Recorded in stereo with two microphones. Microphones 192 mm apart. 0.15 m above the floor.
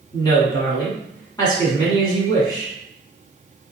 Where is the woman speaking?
20° left (ahead or behind), 1.2 m.